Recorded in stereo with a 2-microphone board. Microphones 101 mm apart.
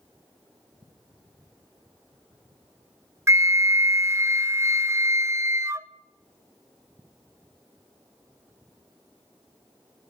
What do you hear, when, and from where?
3.3 s a flute: 30° right (ahead or behind), 0.5 m